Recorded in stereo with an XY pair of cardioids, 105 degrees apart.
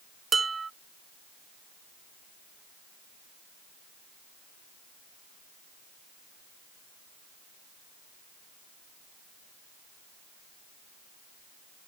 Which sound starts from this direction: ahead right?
Dishes clattering, at 0.3 s.